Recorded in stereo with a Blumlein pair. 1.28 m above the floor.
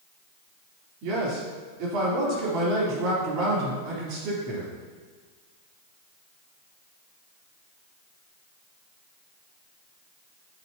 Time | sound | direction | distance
1.0 | a man speaking | 40° right | 3.5 m